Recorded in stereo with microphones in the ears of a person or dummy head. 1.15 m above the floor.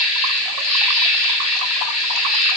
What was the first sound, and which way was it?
An insect, 85° left.